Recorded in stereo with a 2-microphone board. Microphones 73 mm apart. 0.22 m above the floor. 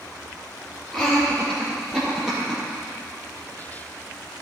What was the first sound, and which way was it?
Laughter, 10° left (ahead or behind).